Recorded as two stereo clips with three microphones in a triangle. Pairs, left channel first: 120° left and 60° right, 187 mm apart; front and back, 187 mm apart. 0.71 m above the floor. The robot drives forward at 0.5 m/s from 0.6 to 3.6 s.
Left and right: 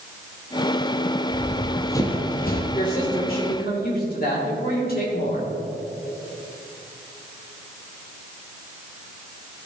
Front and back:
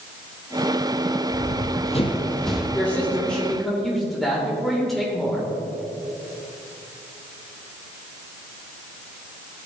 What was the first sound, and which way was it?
Running footsteps, 10° left.